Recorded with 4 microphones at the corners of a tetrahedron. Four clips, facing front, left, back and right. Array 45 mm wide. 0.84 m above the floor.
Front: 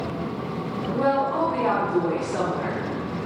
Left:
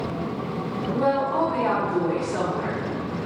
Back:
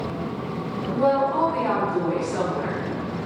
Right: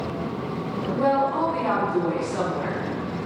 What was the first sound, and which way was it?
A woman speaking, 35° left.